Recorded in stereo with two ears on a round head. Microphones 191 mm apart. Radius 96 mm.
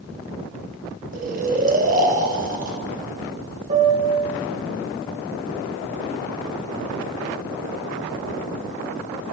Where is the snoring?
35° right (ahead or behind), 1.4 m.